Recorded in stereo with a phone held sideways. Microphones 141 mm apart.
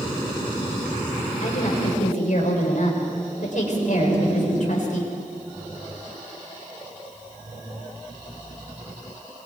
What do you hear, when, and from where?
1.4 s a woman speaking: 65° left (ahead or behind), 5 m